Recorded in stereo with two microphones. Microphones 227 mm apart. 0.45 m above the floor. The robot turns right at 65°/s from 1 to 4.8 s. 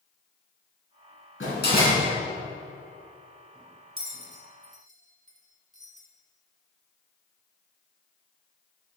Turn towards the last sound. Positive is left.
turn(degrees=-35)  # may be behind; listen again after turning